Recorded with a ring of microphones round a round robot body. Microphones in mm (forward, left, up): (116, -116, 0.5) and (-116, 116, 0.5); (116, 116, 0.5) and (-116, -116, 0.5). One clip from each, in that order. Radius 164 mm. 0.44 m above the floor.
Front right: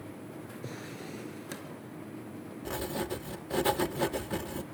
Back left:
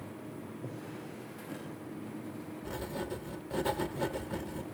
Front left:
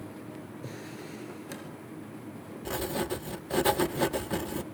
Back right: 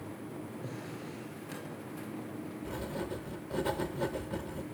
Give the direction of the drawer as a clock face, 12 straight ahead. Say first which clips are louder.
Front right 3 dB, front left 1 dB; 1 o'clock.